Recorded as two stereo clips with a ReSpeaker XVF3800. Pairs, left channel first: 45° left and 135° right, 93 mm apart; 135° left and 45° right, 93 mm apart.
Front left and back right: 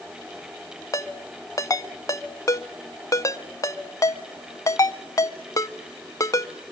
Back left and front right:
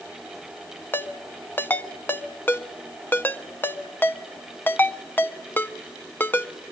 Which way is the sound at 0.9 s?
75° left.